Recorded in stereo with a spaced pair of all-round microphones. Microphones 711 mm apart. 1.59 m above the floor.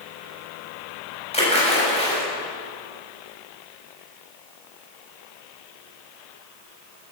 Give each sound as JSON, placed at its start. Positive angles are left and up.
{"t": 1.3, "sound": "a splash", "side_deg": 10, "distance_m": 7.5}